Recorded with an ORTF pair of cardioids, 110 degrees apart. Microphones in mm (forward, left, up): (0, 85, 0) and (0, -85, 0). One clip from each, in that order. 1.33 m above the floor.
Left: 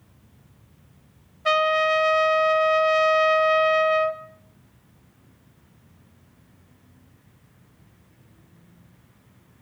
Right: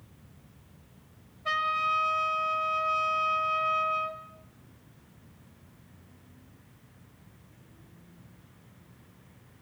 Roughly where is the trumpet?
Ahead left.